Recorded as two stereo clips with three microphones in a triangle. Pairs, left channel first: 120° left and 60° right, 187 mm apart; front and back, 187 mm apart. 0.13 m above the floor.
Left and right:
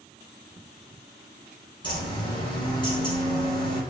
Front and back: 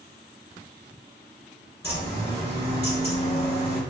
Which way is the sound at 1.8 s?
70° left.